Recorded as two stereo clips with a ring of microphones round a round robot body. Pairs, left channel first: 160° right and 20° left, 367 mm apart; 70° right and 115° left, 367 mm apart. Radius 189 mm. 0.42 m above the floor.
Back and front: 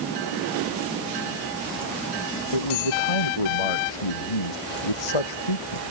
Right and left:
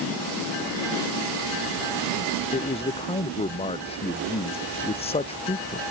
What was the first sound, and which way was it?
A man speaking, 145° right.